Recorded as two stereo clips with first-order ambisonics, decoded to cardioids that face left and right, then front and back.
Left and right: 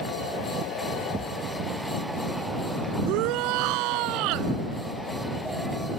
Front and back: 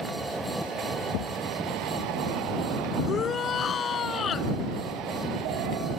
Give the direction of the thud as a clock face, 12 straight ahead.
1 o'clock.